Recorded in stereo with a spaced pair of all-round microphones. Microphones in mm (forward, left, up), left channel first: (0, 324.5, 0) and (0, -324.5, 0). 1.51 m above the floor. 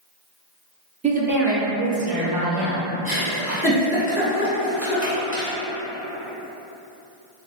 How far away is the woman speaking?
About 0.6 m.